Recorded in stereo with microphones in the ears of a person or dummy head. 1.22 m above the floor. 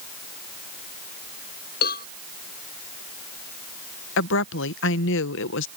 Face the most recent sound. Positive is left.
turn(degrees=65)  # may be behind; listen again after turning